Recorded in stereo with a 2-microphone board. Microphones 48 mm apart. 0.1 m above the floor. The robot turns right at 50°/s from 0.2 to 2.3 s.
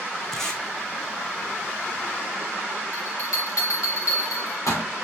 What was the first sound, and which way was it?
Tape being pulled, 5° left (ahead or behind).